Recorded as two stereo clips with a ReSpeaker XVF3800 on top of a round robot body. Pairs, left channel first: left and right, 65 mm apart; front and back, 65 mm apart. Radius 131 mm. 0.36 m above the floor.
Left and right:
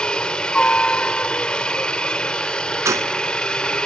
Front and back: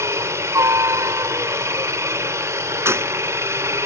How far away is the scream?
No scream in this recording.